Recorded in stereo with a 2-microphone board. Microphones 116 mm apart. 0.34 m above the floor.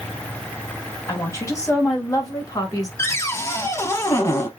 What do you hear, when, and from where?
1.1 s a woman speaking: 25° left (ahead or behind), 2.5 m; by 2.9 s 30° left (ahead or behind), 1.6 m
3.0 s a cupboard door: 25° left (ahead or behind), 0.8 m